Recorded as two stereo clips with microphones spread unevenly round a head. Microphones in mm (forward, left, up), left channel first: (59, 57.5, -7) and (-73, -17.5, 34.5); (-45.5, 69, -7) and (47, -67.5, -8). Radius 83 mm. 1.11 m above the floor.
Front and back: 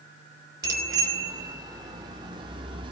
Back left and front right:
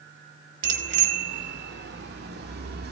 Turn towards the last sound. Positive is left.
turn(degrees=-90)